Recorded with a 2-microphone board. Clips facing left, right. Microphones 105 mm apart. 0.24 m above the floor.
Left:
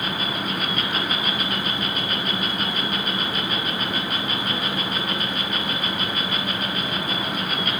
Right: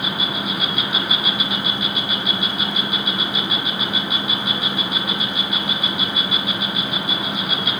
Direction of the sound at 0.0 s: 10° right (ahead or behind).